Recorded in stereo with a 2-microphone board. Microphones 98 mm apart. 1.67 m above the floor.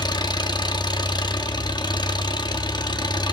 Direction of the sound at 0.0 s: 45° left (ahead or behind).